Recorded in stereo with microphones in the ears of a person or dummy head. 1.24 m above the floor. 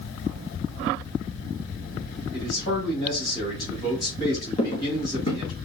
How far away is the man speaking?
About 3 m.